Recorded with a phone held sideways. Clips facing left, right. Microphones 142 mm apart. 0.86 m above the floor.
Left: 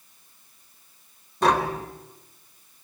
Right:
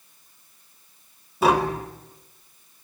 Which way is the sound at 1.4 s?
5° right (ahead or behind).